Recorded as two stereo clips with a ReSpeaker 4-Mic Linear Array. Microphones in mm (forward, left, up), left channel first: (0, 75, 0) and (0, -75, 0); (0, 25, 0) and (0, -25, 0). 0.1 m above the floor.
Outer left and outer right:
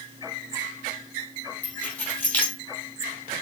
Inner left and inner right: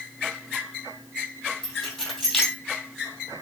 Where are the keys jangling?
10° left (ahead or behind), 2 m.